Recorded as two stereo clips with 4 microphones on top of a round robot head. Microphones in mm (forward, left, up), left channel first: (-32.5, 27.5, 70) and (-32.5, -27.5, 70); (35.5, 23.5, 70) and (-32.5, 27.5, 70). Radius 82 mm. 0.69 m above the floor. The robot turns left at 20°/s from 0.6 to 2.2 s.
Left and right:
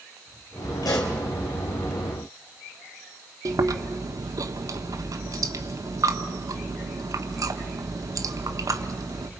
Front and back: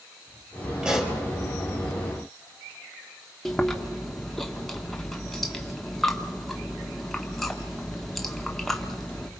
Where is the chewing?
90° right, 1.3 m.